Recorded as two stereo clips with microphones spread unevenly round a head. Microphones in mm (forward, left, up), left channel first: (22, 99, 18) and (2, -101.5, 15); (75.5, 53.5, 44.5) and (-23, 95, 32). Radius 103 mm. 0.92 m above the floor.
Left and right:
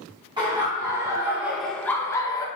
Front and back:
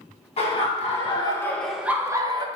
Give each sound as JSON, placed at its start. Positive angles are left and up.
{"t": 0.4, "sound": "laughter", "azimuth_deg": -30, "distance_m": 1.0}